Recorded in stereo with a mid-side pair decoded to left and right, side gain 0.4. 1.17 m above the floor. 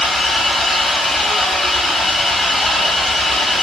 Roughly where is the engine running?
Ahead left.